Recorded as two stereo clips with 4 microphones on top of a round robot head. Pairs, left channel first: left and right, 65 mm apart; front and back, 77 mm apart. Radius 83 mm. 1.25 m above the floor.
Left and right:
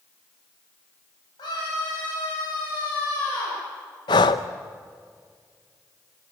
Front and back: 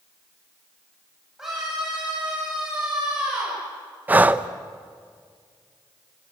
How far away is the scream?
About 7.5 m.